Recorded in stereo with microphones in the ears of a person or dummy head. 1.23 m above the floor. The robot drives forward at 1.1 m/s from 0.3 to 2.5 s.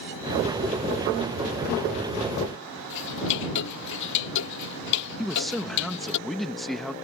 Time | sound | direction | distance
2.9 | ticking | 70° left (ahead or behind) | ?
5.2 | a man speaking | 5° right (ahead or behind) | ?